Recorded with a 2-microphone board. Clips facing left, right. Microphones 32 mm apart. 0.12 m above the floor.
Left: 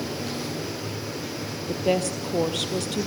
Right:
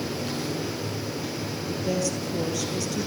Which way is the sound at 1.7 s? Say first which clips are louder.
Left 4 dB; 50° left (ahead or behind).